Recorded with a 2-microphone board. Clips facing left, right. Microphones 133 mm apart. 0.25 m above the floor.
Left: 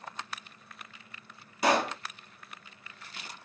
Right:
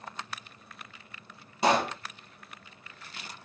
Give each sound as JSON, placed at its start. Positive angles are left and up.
{"t": 1.6, "sound": "a pop", "side_deg": -25, "distance_m": 1.1}